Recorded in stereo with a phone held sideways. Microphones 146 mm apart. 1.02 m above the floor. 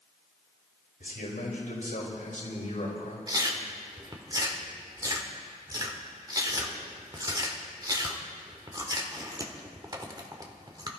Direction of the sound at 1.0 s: 80° left.